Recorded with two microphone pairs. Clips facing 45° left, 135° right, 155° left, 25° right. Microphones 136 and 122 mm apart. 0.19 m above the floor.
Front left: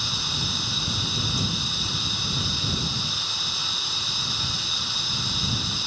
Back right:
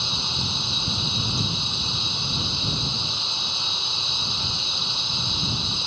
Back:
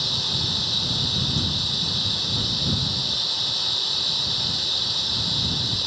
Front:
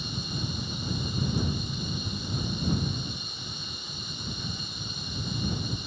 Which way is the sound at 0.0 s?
155° left.